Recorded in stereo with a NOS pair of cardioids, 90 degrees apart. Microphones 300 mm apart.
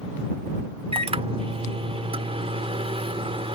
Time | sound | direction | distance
0.9 | a microwave | 20° right | ?